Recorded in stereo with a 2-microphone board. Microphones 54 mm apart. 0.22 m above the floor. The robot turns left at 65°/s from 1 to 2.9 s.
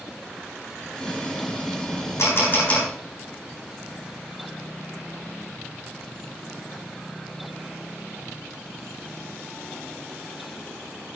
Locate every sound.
2.2 s a camera shutter: 60° left (ahead or behind), 7 m; by 2.9 s 20° left (ahead or behind), 7 m